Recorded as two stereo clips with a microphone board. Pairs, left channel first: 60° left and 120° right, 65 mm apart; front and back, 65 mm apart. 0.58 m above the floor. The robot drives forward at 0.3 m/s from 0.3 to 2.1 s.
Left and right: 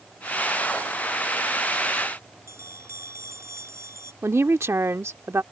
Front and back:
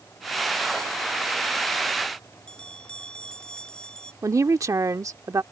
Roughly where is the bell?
Right.